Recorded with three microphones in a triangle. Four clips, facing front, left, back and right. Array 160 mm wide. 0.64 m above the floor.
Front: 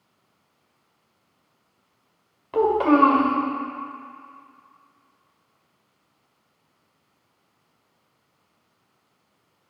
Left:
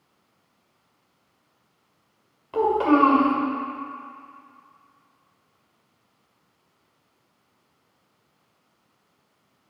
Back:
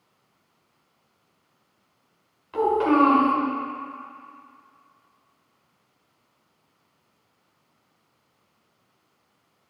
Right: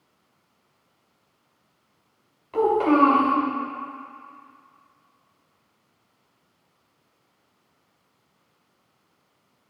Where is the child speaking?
5° left, 2.0 m.